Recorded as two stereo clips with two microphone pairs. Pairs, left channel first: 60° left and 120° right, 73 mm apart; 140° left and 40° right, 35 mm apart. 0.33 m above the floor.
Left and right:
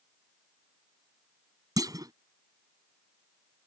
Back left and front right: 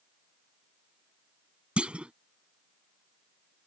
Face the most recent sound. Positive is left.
turn(degrees=-95)